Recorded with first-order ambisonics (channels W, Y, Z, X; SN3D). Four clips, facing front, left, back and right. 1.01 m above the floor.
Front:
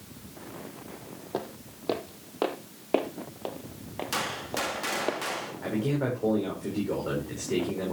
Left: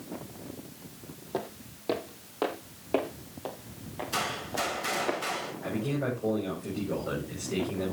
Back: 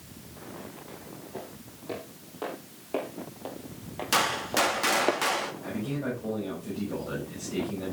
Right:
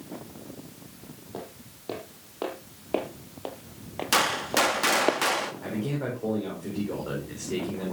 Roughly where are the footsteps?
Ahead left.